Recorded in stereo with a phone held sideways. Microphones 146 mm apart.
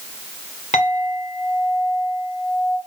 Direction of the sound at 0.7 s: 55° left (ahead or behind).